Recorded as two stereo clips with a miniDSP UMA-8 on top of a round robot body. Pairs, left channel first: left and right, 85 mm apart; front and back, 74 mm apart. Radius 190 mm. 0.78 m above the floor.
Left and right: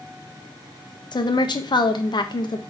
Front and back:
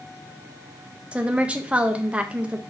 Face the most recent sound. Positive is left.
turn(degrees=110)